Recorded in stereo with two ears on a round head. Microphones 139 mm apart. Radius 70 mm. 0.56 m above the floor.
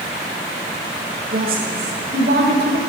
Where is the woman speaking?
60° right (ahead or behind), 1.7 m; by 2.8 s 75° right (ahead or behind), 2.5 m.